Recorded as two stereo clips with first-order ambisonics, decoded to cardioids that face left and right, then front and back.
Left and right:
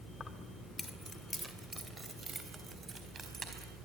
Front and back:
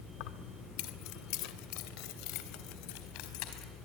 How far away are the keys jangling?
About 1.5 m.